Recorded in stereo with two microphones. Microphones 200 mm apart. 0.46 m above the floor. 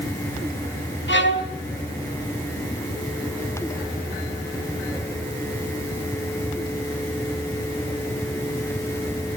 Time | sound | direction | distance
1.1 | a violin | 70° left (ahead or behind) | 3 m